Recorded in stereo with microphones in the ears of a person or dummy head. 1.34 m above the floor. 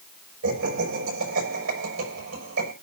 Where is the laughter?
75° right (ahead or behind), 6 m.